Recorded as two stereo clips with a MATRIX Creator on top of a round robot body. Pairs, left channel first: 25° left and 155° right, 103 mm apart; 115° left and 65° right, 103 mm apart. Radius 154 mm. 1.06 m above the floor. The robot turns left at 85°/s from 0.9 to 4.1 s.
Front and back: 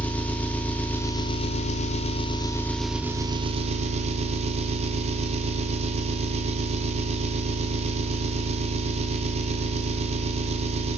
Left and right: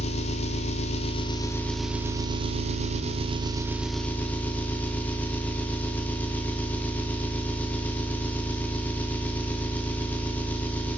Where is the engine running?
100° left, 0.9 m; by 11.0 s 170° right, 0.9 m.